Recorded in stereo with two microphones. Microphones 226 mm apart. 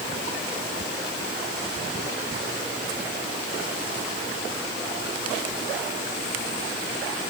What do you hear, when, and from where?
Only background noise.